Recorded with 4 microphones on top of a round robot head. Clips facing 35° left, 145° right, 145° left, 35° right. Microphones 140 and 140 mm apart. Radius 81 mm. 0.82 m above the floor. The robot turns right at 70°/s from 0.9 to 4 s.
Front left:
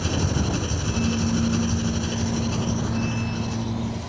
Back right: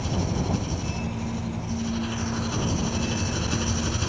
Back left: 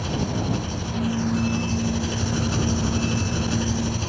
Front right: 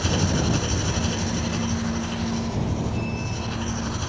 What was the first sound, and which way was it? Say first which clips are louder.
An engine running: front left 2 dB, front right 2 dB; 5° left.